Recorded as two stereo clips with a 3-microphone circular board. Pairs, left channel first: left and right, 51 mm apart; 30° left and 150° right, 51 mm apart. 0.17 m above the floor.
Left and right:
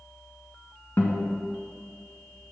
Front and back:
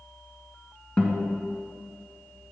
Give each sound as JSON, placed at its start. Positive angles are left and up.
{"t": 1.0, "sound": "a guitar", "azimuth_deg": 90, "distance_m": 1.7}